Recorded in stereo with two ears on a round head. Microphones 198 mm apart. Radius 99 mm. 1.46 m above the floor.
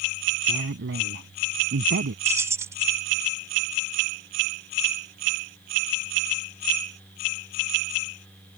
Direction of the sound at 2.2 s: 15° right (ahead or behind).